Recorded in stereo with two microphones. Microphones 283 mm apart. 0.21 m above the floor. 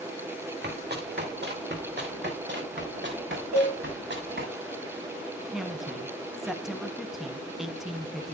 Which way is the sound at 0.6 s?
35° right (ahead or behind).